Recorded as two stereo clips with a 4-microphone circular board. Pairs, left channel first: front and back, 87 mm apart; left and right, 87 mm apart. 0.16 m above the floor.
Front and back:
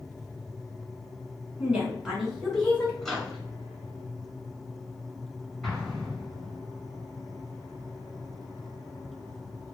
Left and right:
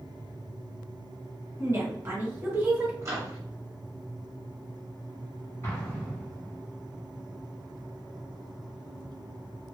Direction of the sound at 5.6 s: 85° left.